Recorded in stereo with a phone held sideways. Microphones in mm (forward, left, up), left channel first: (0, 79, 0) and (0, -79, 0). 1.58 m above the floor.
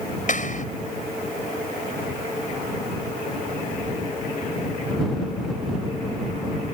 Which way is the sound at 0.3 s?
55° left (ahead or behind).